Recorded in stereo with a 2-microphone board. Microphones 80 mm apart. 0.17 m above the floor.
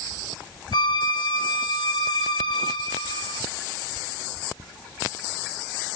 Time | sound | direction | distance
0.7 | a violin | 65° left (ahead or behind) | 0.7 m